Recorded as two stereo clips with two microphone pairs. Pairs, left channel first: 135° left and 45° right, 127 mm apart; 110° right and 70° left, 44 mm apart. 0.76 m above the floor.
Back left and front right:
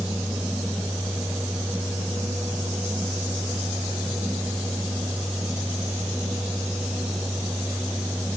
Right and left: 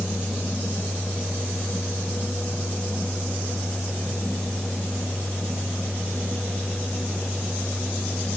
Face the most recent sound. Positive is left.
No sound to turn to.